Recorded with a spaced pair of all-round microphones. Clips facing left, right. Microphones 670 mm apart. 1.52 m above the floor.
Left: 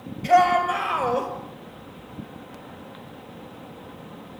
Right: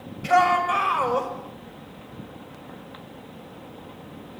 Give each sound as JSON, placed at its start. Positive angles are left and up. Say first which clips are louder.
{"t": 0.2, "sound": "a shout", "louder": "left 2 dB", "side_deg": -40, "distance_m": 6.5}